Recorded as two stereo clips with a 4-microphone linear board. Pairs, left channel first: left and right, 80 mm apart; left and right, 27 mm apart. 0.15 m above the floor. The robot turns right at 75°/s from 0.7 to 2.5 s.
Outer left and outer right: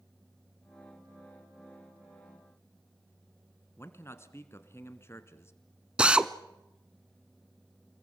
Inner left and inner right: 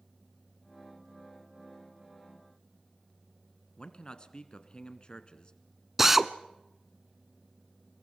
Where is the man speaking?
35° left (ahead or behind), 1.6 m.